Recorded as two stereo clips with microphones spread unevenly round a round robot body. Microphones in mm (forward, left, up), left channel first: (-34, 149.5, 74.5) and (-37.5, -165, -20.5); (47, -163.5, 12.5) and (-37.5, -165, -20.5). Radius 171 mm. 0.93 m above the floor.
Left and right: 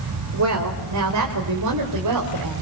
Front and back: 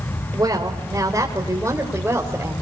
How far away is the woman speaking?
About 4 m.